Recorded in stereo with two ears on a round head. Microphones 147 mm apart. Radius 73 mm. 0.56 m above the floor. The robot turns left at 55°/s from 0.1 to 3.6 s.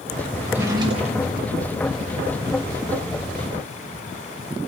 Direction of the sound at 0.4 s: Straight ahead.